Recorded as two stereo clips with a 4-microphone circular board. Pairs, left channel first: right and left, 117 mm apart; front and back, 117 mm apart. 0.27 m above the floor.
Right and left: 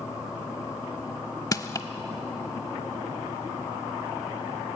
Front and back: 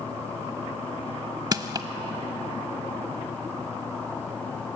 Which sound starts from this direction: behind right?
Crushing, at 1.5 s.